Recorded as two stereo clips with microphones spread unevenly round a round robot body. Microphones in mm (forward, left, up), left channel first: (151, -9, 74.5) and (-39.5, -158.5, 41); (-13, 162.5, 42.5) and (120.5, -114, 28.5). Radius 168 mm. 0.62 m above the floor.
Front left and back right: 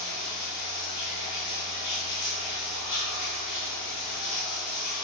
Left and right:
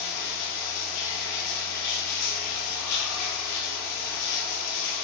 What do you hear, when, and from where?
0.0 s running water: 80° left, 0.8 m